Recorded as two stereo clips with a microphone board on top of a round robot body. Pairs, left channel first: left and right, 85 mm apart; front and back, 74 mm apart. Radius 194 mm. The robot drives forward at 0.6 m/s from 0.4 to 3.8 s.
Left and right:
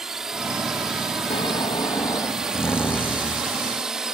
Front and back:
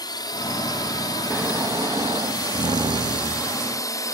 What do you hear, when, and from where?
0.0 s a drone: 5° right; by 4.1 s 10° right
1.3 s snoring: 110° left; by 3.6 s 165° left